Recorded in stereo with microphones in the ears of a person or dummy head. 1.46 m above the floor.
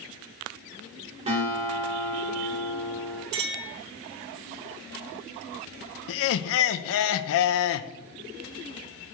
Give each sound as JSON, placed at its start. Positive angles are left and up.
{"t": 1.3, "sound": "a guitar", "side_deg": -30, "distance_m": 2.0}
{"t": 3.3, "sound": "a clink", "side_deg": -65, "distance_m": 3.0}
{"t": 6.1, "sound": "laughter", "side_deg": 65, "distance_m": 0.6}